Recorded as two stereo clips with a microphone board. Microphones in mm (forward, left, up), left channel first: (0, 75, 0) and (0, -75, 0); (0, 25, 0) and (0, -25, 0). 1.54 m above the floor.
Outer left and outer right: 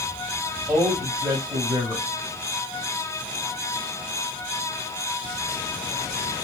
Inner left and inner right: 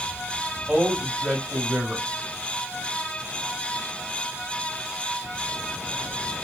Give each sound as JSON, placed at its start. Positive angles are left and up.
{"t": 0.7, "sound": "a man speaking", "side_deg": -10, "distance_m": 1.8}